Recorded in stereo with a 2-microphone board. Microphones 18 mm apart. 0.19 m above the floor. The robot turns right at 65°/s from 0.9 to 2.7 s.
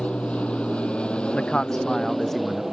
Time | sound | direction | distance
0.0 | an aircraft | 80° left | ?
1.3 | a man speaking | 100° left | ?